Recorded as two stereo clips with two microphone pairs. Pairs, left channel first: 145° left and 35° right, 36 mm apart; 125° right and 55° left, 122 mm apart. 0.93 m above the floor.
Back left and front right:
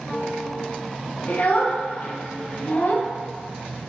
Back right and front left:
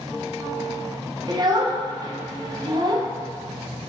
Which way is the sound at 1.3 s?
105° left.